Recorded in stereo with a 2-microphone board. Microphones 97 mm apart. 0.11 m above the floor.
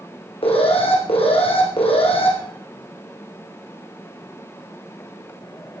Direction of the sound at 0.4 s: 75° left (ahead or behind).